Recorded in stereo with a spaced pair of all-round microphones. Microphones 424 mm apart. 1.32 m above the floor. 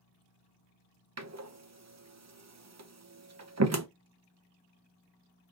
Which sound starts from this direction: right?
A door slam, at 1.2 s.